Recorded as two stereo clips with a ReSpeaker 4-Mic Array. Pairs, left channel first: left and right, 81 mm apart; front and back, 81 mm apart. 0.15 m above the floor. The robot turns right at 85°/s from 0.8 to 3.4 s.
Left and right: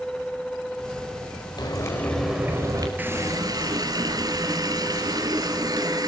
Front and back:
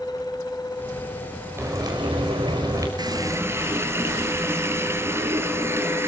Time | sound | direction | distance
1.6 | frying | 120° left | 4.5 m
3.0 | a running tap | 160° right | 2 m